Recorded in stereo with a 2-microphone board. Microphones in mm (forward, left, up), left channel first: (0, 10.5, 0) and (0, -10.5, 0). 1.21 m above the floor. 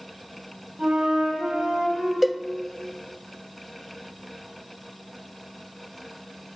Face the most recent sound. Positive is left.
turn(degrees=-10)  # may be behind; listen again after turning